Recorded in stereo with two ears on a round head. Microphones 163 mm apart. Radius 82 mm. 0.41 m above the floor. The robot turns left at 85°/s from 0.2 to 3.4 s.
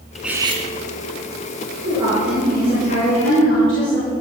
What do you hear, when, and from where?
0.1 s cutlery clinking: straight ahead, 2 m; by 0.7 s 40° right, 2 m
1.9 s a woman speaking: 140° right, 6.5 m; by 4.1 s 85° left, 6.5 m